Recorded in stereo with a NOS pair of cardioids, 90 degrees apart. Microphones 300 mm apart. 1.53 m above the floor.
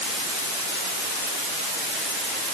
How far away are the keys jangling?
No keys jangling in this recording.